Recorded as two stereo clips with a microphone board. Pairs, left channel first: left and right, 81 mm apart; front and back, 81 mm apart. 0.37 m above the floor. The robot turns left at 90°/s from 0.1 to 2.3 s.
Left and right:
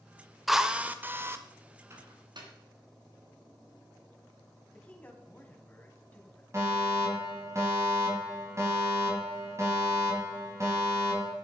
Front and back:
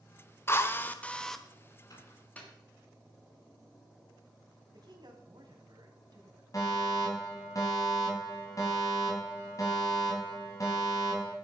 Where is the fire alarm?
40° right, 4 m.